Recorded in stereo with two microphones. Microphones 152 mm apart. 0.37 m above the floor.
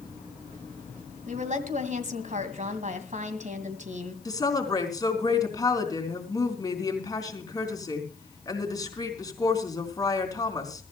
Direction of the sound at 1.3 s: 55° right (ahead or behind).